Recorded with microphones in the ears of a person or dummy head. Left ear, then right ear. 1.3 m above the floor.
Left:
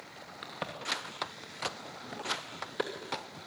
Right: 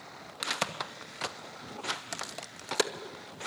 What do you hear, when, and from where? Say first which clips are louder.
0.4 s a crack: right 5 dB; 80° right, 2 m